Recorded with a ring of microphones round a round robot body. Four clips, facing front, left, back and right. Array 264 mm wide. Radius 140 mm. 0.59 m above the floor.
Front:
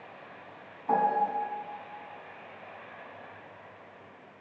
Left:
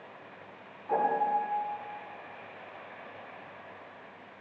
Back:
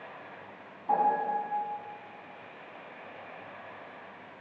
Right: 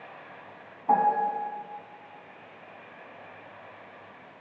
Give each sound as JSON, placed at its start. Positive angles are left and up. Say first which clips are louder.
{"t": 0.9, "sound": "a piano", "louder": "right 4 dB, even", "azimuth_deg": -80, "distance_m": 5.0}